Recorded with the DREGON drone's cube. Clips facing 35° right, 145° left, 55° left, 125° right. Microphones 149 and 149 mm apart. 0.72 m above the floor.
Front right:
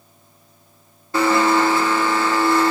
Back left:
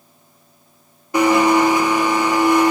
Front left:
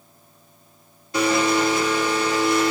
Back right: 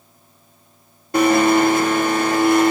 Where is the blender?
145° right, 0.6 m.